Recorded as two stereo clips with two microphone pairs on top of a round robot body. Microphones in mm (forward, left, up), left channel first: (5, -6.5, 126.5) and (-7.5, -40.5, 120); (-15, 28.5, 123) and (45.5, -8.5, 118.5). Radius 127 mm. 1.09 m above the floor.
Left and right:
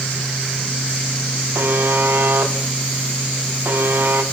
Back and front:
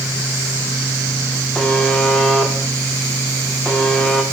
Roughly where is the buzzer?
Behind right.